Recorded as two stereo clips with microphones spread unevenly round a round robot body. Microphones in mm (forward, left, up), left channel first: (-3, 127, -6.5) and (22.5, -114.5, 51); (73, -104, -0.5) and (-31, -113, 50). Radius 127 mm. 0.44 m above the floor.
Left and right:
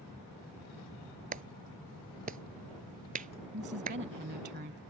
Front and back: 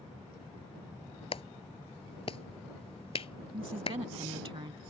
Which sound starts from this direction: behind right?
A woman speaking, at 3.5 s.